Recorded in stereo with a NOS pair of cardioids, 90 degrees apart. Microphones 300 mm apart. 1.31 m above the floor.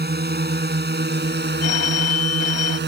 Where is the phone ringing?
60° left.